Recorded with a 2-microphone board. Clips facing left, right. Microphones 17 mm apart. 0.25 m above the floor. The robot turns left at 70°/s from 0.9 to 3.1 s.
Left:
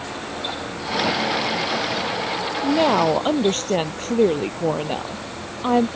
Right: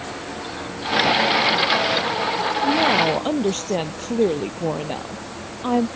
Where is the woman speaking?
45° left; by 5.9 s 10° left.